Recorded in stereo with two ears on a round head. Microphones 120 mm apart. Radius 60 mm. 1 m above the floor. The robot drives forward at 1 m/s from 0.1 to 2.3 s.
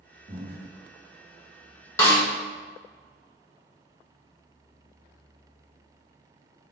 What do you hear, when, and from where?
0.3 s breathing: 35° right (ahead or behind), 1.4 m; by 0.7 s 45° right (ahead or behind), 1.1 m
2.0 s a snare drum: 20° left (ahead or behind), 1.2 m; by 2.2 s 15° left (ahead or behind), 1.4 m